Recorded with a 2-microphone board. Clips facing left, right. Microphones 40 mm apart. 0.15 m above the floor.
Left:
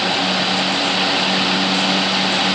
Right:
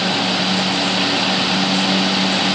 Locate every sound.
Only background noise.